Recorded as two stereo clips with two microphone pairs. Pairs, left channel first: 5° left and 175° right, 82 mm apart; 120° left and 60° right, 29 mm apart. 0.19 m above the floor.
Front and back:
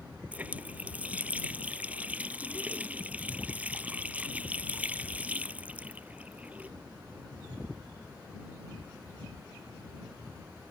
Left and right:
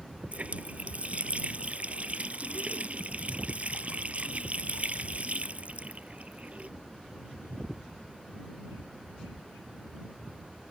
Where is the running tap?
105° right.